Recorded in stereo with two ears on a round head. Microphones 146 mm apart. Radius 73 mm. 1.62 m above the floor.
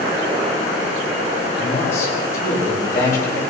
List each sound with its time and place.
1.6 s a man speaking: 20° left (ahead or behind), 9 m